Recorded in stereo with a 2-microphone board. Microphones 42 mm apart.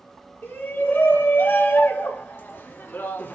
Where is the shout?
60° left (ahead or behind), 6.5 m; by 3.4 s 55° left (ahead or behind), 3 m.